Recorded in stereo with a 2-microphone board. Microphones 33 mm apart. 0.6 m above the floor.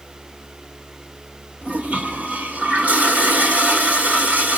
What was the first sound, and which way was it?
A toilet flushing, 55° right (ahead or behind).